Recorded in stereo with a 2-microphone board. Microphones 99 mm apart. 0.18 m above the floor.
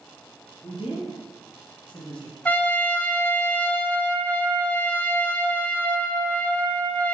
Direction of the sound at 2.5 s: 20° left (ahead or behind).